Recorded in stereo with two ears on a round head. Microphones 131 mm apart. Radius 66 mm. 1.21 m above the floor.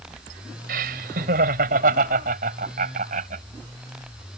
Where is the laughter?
75° right (ahead or behind); by 3.4 s 60° right (ahead or behind).